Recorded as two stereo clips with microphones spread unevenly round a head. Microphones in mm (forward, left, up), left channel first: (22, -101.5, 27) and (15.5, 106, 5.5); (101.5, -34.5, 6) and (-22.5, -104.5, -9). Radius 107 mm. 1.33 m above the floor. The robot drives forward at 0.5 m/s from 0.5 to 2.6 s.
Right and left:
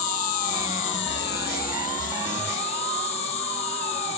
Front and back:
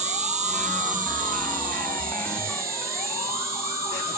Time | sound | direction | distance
0.0 | an insect | 115° right | 0.9 m